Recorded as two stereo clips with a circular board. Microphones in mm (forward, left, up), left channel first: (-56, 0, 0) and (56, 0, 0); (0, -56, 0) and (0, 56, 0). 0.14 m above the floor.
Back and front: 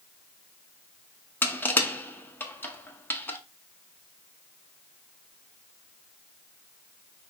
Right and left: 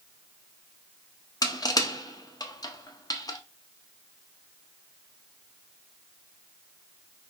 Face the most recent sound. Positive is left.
turn(degrees=-115)